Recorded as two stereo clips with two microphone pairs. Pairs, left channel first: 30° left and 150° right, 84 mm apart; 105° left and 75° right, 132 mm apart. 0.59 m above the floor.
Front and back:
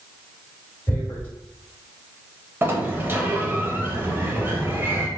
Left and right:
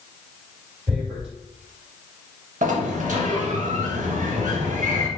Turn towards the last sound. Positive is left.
turn(degrees=-85)